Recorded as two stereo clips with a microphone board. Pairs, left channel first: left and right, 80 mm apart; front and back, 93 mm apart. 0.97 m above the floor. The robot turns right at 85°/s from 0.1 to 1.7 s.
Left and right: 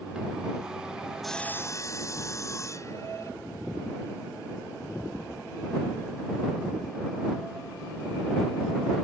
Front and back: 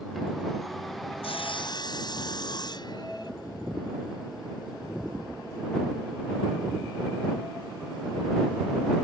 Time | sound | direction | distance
1.2 | sawing | straight ahead | ?